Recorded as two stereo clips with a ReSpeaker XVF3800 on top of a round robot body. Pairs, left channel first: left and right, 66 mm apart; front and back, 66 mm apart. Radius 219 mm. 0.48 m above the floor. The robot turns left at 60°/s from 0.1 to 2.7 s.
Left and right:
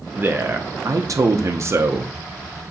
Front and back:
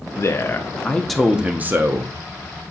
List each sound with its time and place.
0.2 s a man speaking: 30° right, 1.0 m; by 2.1 s 150° right, 1.0 m